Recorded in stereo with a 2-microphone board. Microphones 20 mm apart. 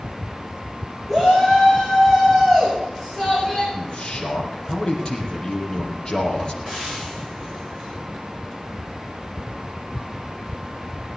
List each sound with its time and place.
1.1 s a shout: 5° right (ahead or behind), 6.5 m; by 3.6 s 15° right (ahead or behind), 8 m
3.7 s a man speaking: 40° left (ahead or behind), 4 m
6.6 s frying: centre (ahead or behind), 10 m